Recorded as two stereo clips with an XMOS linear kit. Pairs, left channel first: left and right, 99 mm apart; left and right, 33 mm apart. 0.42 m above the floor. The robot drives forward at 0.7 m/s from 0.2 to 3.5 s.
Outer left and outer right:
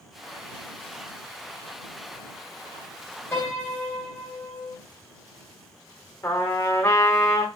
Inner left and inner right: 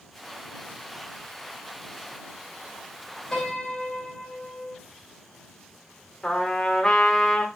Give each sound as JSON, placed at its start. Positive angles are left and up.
{"t": 3.3, "sound": "a piano", "side_deg": 25, "distance_m": 3.0}
{"t": 6.2, "sound": "a trumpet", "side_deg": 30, "distance_m": 1.2}